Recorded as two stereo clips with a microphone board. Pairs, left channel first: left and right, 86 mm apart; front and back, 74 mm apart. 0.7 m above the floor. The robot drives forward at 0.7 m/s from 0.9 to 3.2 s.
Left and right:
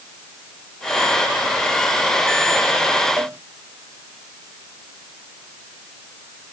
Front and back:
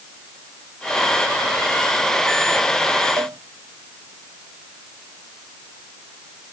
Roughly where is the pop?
No pop in this recording.